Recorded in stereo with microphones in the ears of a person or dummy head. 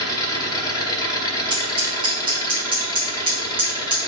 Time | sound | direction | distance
0.0 | an engine running | 25° left (ahead or behind) | 1.7 m
1.5 | scissors | 35° right (ahead or behind) | 1.9 m